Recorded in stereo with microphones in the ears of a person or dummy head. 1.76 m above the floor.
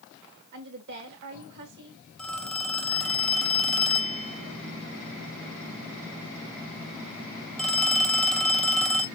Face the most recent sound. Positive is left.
turn(degrees=0)  # may be behind; listen again after turning